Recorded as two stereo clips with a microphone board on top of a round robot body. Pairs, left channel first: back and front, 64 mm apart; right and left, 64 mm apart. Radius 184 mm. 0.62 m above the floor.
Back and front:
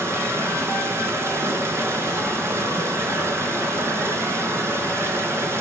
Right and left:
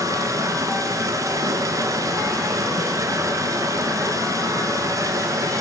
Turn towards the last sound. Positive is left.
turn(degrees=50)